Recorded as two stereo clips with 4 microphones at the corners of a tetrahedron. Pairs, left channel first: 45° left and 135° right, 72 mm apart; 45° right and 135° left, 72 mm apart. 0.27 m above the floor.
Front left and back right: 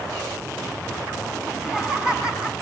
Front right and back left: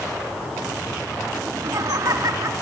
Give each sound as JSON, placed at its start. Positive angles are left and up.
{"t": 1.5, "sound": "laughter", "azimuth_deg": 145, "distance_m": 3.5}